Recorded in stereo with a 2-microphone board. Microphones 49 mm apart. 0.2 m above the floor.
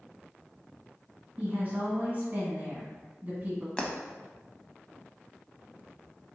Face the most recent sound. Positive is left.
turn(degrees=20)  # may be behind; listen again after turning